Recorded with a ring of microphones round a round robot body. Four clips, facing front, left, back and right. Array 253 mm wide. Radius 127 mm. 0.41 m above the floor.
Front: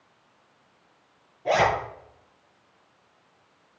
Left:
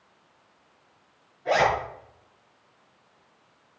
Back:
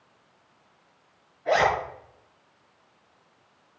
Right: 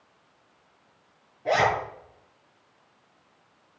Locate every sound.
1.4 s a zipper: 40° right, 5 m